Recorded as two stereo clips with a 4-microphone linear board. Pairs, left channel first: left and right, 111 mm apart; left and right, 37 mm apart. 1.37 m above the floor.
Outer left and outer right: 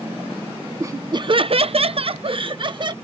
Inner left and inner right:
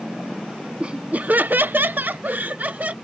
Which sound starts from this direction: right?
Laughter, at 0.8 s.